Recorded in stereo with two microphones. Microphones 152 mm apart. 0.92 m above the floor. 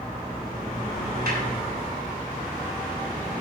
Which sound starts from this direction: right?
A snare drum, at 1.3 s.